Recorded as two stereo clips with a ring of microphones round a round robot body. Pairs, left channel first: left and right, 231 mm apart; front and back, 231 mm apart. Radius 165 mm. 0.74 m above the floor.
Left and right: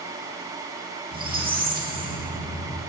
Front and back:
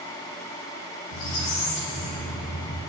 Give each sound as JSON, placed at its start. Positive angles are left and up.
{"t": 1.1, "sound": "a squeak", "azimuth_deg": -40, "distance_m": 6.5}